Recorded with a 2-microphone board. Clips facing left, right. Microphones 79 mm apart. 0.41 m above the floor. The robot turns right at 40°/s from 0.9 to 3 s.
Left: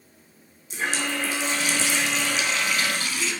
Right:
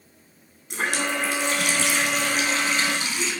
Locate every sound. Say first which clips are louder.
0.7 s a running tap: right 2 dB; 105° right, 2.5 m; by 3.3 s 20° right, 2.5 m